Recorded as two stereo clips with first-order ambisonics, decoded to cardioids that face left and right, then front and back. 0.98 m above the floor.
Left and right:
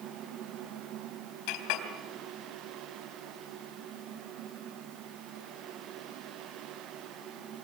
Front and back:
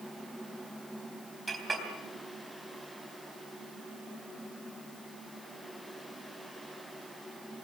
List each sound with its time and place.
1.5 s a clink: 105° left, 3 m